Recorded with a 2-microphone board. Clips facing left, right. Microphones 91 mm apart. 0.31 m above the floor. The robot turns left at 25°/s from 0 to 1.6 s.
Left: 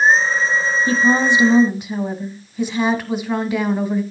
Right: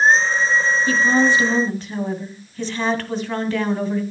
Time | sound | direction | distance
0.9 | a woman speaking | 25° left (ahead or behind) | 1.9 m